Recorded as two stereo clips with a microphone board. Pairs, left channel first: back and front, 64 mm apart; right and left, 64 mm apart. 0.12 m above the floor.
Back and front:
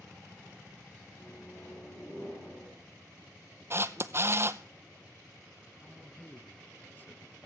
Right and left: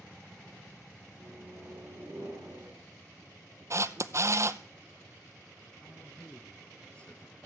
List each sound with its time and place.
1.1 s a microwave: 125° left, 7.5 m
3.7 s a camera shutter: 50° left, 0.5 m
5.8 s a man speaking: 150° right, 1.4 m